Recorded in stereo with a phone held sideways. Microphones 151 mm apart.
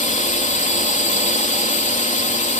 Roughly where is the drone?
Left.